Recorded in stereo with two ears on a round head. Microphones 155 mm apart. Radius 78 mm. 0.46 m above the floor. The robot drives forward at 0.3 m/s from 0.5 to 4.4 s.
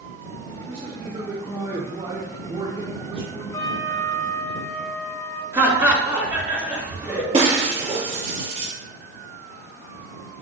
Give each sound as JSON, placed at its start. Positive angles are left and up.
{"t": 0.7, "sound": "a man speaking", "side_deg": -30, "distance_m": 1.3}
{"t": 3.5, "sound": "a trumpet", "side_deg": 20, "distance_m": 0.9}
{"t": 5.5, "sound": "laughter", "side_deg": -15, "distance_m": 3.5}
{"t": 7.3, "sound": "breaking glass", "side_deg": -35, "distance_m": 3.0}